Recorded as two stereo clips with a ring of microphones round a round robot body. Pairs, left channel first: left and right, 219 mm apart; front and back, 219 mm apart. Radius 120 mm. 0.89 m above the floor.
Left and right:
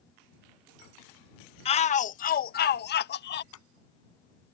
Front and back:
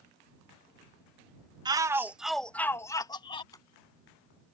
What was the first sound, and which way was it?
A shout, 125° left.